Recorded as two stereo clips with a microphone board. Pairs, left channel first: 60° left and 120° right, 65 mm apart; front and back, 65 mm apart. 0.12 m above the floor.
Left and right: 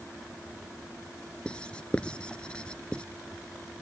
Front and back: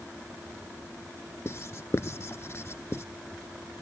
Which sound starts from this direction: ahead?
Writing, at 1.4 s.